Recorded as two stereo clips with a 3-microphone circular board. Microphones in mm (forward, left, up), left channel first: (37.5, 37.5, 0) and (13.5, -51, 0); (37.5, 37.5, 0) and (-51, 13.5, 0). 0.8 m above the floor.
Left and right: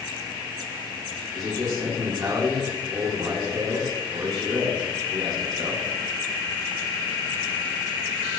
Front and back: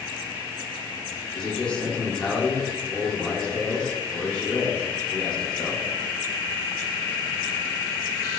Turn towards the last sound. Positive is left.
turn(degrees=-60)